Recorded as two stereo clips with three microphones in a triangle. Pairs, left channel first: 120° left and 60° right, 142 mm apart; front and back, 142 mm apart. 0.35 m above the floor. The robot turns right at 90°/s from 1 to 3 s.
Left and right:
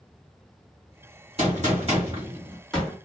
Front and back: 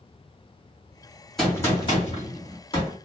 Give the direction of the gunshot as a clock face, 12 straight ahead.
3 o'clock.